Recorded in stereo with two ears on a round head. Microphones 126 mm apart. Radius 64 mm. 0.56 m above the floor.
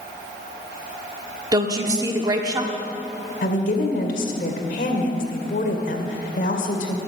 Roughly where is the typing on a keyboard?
I don't hear typing on a keyboard.